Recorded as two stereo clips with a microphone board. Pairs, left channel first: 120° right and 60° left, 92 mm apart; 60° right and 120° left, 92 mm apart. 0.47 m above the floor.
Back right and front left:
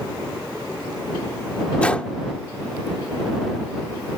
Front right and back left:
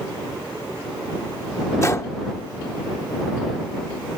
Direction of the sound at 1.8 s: 55° right.